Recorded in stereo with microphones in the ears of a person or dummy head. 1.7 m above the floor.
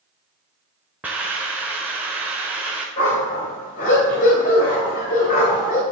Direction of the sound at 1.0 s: 10° right (ahead or behind).